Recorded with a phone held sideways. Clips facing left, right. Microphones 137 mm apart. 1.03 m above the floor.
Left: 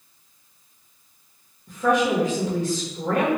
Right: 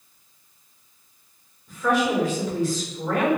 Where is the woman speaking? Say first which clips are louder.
Left 2 dB; 50° left (ahead or behind), 1.4 m.